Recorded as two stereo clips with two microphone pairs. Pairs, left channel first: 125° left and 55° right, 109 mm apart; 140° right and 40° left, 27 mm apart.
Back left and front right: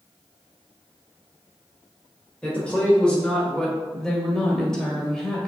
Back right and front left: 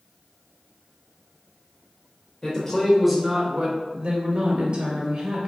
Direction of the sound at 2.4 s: 165° right.